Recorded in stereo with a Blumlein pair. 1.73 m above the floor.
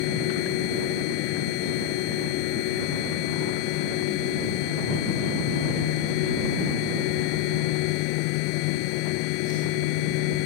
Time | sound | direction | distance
0.0 | a machine running | 45° left | ?